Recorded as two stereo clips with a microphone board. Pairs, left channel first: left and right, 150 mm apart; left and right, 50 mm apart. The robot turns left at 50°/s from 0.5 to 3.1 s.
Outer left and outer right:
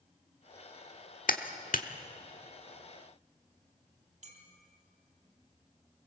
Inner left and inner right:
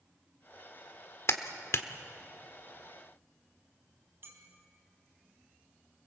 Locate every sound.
1.3 s a clap: 65° left (ahead or behind), 1.3 m
4.2 s a clink: 55° right (ahead or behind), 3.5 m